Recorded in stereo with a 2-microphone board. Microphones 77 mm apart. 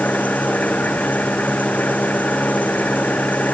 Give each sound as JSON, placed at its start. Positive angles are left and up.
{"t": 0.0, "sound": "an engine running", "side_deg": 20}